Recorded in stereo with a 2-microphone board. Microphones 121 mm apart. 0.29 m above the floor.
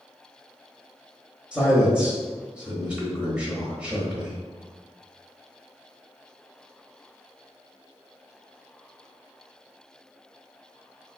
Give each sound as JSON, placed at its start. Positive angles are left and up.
{"t": 1.5, "sound": "a man speaking", "side_deg": -10, "distance_m": 1.0}